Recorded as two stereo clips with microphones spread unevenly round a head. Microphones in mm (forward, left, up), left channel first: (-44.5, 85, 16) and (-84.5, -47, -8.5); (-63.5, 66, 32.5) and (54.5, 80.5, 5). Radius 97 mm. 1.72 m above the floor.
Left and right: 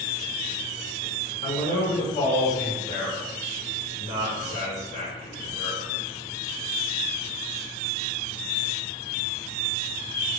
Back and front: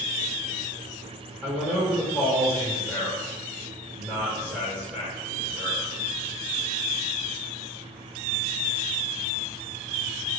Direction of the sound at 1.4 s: 95° left.